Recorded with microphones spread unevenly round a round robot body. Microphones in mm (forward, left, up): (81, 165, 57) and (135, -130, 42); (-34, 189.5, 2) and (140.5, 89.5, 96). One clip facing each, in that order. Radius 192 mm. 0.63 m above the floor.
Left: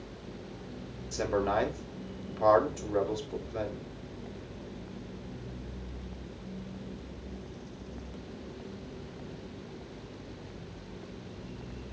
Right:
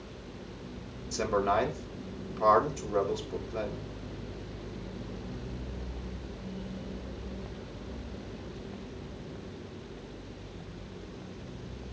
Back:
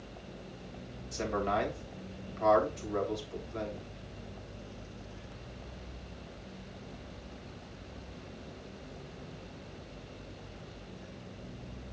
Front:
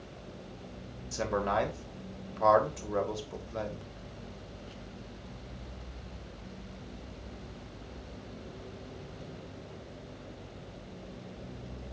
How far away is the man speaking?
About 3 m.